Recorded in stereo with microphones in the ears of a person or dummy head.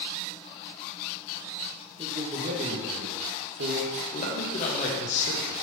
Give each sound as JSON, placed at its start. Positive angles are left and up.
{"t": 2.0, "sound": "a man speaking", "side_deg": -25, "distance_m": 1.7}
{"t": 4.1, "sound": "a man speaking", "side_deg": 45, "distance_m": 1.5}